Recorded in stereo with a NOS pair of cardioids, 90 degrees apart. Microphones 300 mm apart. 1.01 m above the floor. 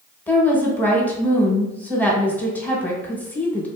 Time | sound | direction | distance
0.3 | a woman speaking | 5° left | 1.0 m